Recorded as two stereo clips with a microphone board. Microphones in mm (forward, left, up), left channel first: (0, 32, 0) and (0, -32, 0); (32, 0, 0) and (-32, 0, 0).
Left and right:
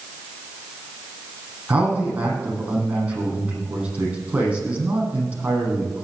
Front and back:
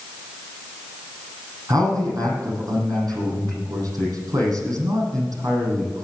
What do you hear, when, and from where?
1.7 s a man speaking: 160° right, 8 m